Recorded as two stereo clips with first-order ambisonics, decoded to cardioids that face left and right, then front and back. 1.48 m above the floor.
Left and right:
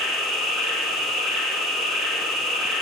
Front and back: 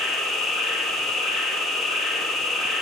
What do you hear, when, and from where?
0.0 s an insect: 60° left, 3 m